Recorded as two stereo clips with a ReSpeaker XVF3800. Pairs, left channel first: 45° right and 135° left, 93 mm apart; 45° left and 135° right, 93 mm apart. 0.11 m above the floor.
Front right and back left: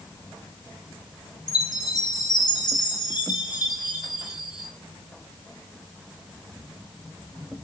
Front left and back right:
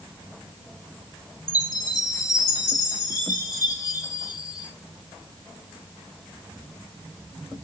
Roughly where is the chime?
Ahead.